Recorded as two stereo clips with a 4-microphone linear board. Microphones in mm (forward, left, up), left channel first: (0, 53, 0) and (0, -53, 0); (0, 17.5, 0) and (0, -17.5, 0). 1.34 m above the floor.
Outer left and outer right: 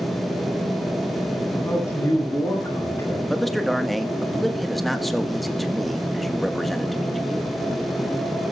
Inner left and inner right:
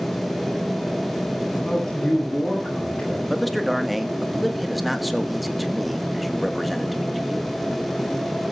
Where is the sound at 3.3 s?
Centre (ahead or behind), 1.5 m.